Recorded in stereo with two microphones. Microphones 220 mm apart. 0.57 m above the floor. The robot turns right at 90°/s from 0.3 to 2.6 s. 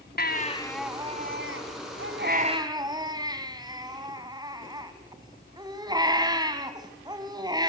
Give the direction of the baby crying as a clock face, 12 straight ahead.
8 o'clock.